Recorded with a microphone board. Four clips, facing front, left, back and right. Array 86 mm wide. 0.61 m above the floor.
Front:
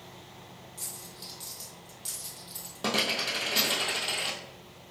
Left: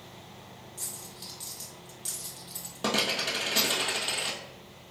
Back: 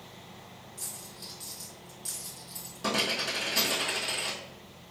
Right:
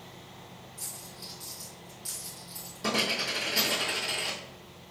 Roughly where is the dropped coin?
Ahead left.